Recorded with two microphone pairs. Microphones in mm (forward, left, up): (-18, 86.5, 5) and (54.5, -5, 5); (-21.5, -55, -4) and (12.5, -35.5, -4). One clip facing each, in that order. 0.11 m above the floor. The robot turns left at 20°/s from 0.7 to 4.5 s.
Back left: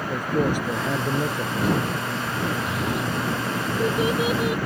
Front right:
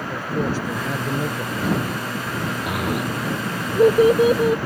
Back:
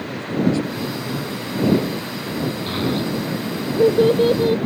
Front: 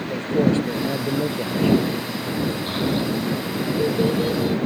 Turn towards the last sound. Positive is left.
turn(degrees=-110)